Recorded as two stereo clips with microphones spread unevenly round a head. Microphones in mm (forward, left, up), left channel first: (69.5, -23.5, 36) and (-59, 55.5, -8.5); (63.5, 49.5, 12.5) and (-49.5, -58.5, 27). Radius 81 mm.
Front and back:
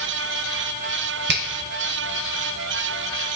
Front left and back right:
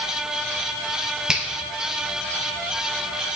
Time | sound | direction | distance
1.3 | a finger snap | 135° left | 0.7 m